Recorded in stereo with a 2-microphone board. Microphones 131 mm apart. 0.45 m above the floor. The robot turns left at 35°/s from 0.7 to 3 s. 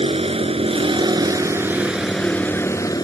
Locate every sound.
0.0 s a vehicle: 130° right; by 3.0 s 150° left